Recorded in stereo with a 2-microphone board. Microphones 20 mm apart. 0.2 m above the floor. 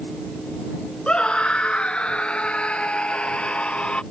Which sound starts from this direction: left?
A scream, at 1.1 s.